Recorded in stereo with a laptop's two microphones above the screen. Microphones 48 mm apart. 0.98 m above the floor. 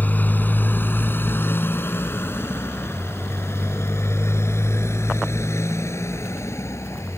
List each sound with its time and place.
0.0 s a motorcycle: 40° left (ahead or behind); by 7.2 s 80° left